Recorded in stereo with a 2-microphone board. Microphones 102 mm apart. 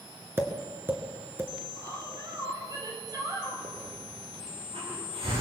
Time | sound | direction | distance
0.4 | tapping | 25° right (ahead or behind) | 2.5 m
1.7 | a woman speaking | 40° right (ahead or behind) | 9 m
3.6 | a hiss | 85° right | 9 m